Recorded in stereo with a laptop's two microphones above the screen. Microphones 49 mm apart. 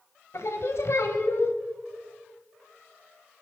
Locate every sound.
0.3 s singing: 65° left (ahead or behind), 1.3 m